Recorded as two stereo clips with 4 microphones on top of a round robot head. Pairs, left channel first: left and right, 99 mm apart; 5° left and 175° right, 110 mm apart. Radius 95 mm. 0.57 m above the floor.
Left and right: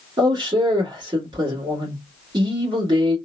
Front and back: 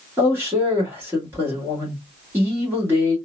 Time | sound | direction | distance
0.2 | a man speaking | 110° right | 1.5 m